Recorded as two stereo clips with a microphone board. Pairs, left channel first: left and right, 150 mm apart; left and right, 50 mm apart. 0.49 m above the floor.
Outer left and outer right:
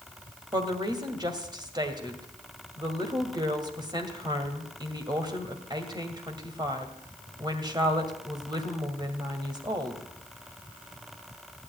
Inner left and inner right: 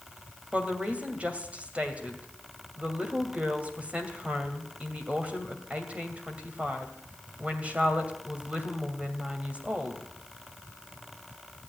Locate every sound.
0.5 s a woman speaking: 30° right (ahead or behind), 2 m